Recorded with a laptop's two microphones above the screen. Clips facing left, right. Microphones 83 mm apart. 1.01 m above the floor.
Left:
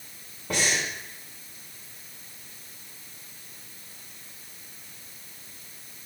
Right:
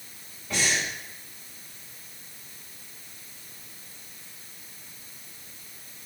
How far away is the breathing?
About 3 m.